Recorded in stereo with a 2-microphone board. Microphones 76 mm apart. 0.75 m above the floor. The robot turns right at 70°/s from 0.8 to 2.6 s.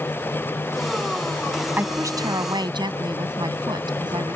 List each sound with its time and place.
1.8 s a woman speaking: 150° right; by 4.4 s 95° right